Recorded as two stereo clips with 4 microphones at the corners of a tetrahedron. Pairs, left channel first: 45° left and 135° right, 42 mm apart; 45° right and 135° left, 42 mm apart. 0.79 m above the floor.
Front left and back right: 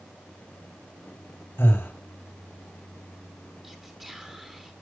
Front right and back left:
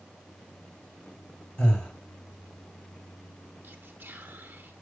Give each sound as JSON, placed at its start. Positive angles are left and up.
{"t": 1.6, "sound": "breathing", "azimuth_deg": 15, "distance_m": 3.0}
{"t": 3.6, "sound": "whispering", "azimuth_deg": 150, "distance_m": 1.1}